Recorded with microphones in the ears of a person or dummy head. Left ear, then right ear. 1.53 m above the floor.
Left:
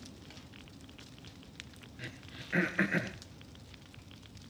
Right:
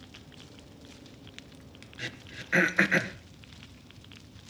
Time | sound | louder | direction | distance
2.0 | throat clearing | right 7 dB | 25° right (ahead or behind) | 1.7 m